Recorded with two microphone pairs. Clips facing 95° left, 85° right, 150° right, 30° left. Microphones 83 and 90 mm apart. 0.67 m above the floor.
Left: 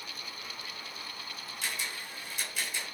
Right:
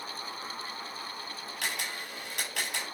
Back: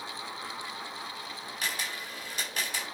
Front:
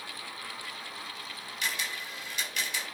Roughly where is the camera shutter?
Right.